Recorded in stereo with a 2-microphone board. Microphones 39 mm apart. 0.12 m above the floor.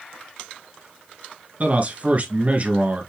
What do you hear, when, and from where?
1.6 s a man speaking: 40° right (ahead or behind), 1.5 m